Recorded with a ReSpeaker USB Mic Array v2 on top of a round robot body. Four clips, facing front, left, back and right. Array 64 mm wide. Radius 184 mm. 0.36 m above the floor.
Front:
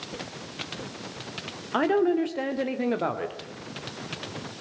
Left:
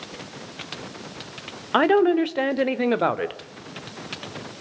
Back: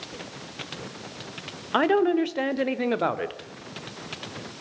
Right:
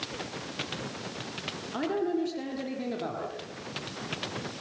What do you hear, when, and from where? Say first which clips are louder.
1.7 s a woman speaking: left 12 dB, back 2 dB; 110° left, 2.5 m